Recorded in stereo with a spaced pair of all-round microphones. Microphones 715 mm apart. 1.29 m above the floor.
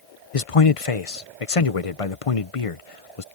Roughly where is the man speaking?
Left.